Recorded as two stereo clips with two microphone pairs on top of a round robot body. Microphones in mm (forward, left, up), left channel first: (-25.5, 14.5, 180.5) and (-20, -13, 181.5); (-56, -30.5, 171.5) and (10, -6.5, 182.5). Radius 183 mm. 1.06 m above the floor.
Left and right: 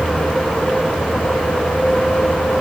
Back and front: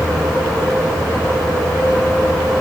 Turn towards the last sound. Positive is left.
No sound to turn to.